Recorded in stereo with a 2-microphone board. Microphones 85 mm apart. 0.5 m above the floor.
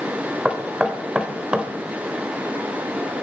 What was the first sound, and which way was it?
Knocking, 10° right (ahead or behind).